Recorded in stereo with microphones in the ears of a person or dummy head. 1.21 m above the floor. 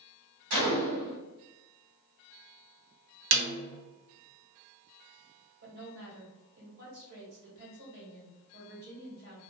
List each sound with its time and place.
0.5 s a gunshot: 60° right (ahead or behind), 1.6 m
3.3 s a snare drum: 60° right (ahead or behind), 0.7 m
5.6 s a woman speaking: 60° right (ahead or behind), 1.5 m